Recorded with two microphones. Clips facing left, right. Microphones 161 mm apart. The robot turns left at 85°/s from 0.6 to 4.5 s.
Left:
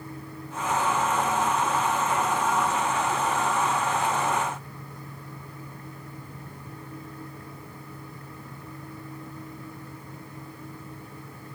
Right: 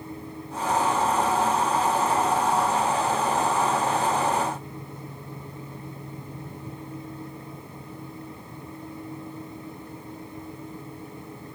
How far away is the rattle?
No rattle in this recording.